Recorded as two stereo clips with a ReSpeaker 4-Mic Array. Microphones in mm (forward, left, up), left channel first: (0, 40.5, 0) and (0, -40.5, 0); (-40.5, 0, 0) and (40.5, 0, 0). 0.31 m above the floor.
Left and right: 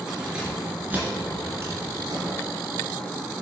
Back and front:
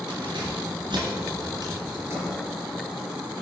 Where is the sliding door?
55° right, 3 m.